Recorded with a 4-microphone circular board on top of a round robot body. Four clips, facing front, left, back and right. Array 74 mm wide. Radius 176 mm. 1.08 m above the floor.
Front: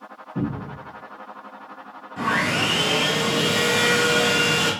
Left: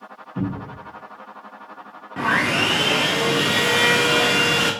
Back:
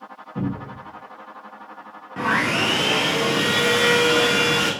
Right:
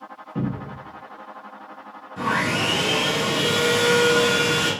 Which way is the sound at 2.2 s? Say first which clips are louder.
Left 3 dB, back 1 dB; 130° left.